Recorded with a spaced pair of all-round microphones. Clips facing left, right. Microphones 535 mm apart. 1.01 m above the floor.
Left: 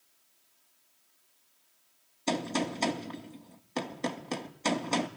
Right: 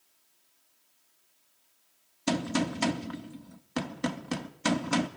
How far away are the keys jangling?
No keys jangling in this recording.